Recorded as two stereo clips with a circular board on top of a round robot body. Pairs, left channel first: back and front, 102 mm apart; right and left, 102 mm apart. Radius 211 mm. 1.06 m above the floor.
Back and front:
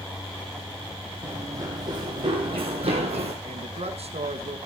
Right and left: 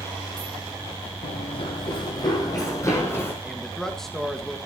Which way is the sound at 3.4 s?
5° right.